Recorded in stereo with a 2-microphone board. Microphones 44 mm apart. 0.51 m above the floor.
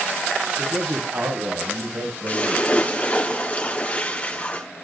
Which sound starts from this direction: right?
A man speaking, at 0.6 s.